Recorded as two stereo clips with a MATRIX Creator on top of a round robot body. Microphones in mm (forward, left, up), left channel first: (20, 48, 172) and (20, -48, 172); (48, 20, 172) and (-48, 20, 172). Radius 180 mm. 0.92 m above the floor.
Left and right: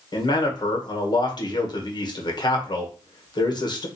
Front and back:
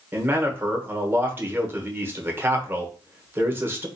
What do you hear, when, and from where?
0.1 s a man speaking: 115° left, 1.1 m